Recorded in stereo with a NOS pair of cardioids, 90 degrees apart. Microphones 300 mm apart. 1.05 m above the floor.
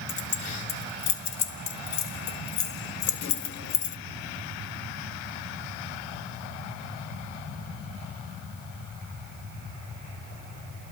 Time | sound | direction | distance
0.1 | keys jangling | 65° left | 2 m